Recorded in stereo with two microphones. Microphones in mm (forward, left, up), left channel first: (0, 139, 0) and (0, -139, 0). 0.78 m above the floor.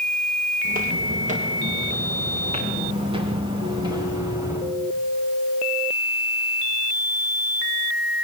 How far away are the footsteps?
About 6.5 m.